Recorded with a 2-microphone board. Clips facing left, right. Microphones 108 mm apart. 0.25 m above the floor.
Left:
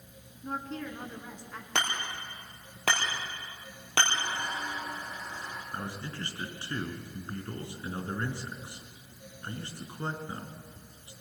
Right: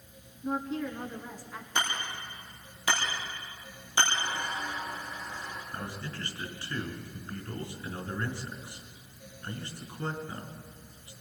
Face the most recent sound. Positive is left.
turn(degrees=30)  # may be behind; listen again after turning